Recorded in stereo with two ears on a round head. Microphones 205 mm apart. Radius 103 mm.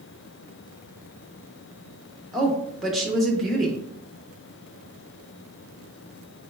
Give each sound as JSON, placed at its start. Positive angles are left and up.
{"t": 2.3, "sound": "a woman speaking", "side_deg": 0, "distance_m": 0.7}